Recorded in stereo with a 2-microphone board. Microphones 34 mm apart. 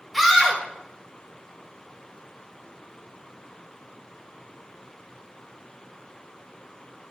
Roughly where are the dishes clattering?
I don't hear dishes clattering.